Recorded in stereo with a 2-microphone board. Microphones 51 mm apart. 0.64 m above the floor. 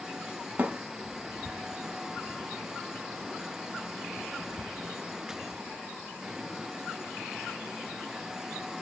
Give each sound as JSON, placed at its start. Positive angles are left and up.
{"t": 0.6, "sound": "a thud", "side_deg": -35, "distance_m": 0.7}